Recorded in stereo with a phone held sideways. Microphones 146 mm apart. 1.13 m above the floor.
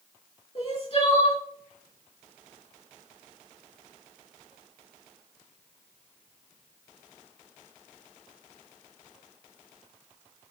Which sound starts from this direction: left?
Crying, at 0.6 s.